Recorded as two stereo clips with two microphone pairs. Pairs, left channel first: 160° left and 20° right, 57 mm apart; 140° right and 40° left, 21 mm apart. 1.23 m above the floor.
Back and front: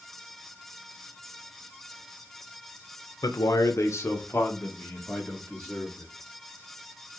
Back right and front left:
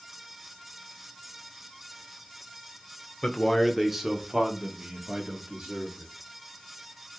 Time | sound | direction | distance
3.2 | a man speaking | 165° left | 0.6 m